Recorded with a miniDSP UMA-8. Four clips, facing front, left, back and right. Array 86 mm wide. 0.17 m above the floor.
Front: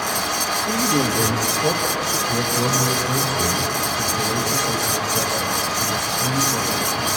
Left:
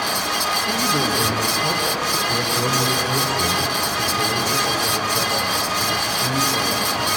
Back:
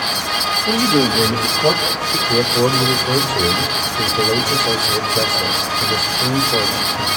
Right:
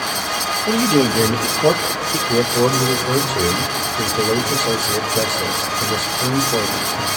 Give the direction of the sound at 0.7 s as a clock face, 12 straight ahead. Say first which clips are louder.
Right 9 dB, back 5 dB; 4 o'clock.